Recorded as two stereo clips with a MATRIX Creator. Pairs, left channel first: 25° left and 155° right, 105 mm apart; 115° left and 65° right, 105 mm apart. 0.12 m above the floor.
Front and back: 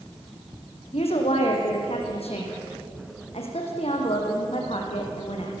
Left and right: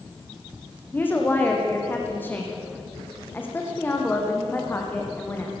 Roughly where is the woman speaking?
Ahead left.